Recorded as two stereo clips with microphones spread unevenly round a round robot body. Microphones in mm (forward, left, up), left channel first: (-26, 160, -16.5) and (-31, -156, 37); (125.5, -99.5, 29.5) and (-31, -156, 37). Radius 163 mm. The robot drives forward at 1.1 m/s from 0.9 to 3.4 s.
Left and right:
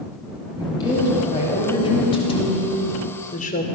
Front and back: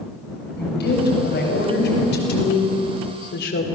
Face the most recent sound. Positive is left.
turn(degrees=20)